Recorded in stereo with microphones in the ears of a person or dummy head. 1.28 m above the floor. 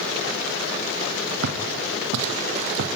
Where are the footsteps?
70° right (ahead or behind), 3.5 m; by 2.9 s 65° right (ahead or behind), 3 m.